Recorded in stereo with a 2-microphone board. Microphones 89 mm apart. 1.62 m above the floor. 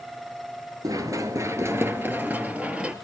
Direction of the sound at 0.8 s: 40° right (ahead or behind).